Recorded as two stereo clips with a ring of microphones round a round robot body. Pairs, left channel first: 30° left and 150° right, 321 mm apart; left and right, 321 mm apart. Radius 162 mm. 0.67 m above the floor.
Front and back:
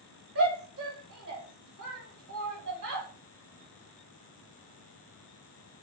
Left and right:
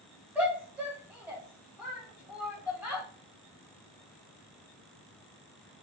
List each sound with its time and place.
0.3 s a shout: 170° right, 1.4 m